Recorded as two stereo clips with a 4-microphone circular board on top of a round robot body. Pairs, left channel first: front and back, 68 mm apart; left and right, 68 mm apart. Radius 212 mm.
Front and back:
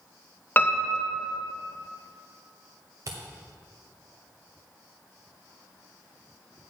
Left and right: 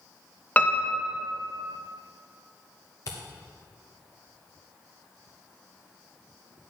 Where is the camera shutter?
135° left, 0.7 m.